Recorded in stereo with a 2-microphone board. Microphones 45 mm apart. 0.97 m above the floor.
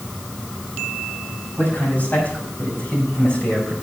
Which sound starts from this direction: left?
A man speaking, at 1.6 s.